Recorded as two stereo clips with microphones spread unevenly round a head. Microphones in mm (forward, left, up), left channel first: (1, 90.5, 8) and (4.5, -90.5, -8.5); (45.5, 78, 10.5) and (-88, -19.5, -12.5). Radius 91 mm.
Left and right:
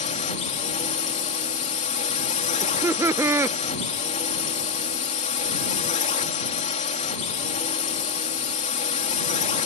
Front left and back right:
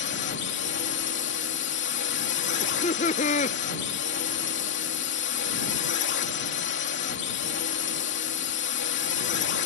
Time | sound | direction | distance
0.0 | a drone | 40° left | ?
2.6 | laughter | 20° right | ?